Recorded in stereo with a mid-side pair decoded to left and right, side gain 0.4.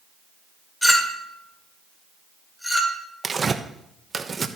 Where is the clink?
10° left, 2.5 m.